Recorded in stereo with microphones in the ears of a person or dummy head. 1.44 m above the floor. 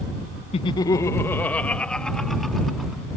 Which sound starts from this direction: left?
Laughter, at 0.5 s.